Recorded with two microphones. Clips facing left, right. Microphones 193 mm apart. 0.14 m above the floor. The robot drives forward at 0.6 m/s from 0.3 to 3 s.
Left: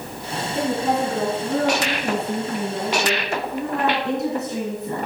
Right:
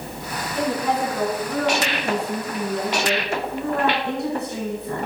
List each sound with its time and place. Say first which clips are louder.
0.6 s a woman speaking: left 1 dB; 25° left (ahead or behind), 1.8 m